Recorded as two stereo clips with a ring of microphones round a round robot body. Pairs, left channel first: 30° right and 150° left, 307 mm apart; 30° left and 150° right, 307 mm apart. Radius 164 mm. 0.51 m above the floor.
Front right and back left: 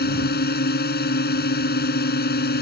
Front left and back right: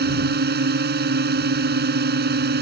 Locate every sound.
0.0 s a drone: 90° right